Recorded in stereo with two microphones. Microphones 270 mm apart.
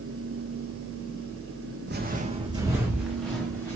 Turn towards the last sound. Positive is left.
turn(degrees=10)  # may be behind; listen again after turning